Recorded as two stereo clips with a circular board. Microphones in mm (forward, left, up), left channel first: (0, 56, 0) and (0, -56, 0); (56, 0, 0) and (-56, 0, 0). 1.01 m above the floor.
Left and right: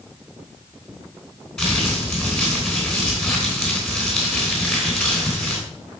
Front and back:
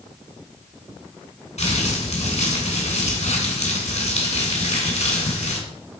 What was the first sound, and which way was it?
Crumpling, 5° left.